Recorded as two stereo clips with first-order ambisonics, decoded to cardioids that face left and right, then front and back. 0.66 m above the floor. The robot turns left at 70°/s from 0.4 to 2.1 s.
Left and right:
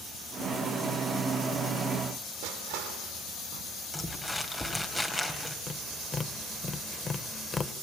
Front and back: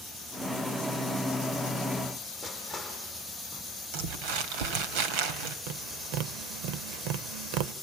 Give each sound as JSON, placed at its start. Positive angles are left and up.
{"t": 2.4, "sound": "crushing", "azimuth_deg": -95, "distance_m": 4.5}
{"t": 3.9, "sound": "crumpling", "azimuth_deg": 175, "distance_m": 2.5}
{"t": 5.7, "sound": "tapping", "azimuth_deg": 165, "distance_m": 0.9}